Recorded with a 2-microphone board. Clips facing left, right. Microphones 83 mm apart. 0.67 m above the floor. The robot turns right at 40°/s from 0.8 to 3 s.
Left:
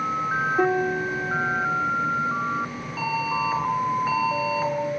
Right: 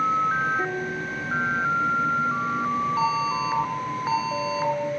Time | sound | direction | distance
0.6 | a piano | 125° left | 3 m
3.0 | an alarm | 15° right (ahead or behind) | 10 m